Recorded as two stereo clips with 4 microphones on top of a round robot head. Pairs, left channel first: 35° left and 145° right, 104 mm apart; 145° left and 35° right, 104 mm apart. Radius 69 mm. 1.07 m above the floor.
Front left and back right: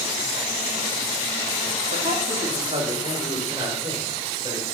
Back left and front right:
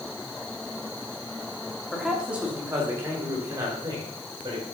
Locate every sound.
1.9 s a man speaking: 125° right, 2 m; by 4.6 s 85° right, 5.5 m